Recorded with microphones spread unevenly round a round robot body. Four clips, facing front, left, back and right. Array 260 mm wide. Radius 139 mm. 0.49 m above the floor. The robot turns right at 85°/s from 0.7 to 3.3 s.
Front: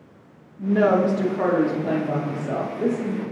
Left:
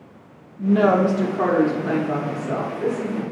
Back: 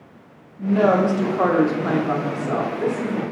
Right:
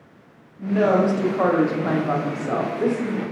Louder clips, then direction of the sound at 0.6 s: Left 2 dB, back 1 dB; 120° left.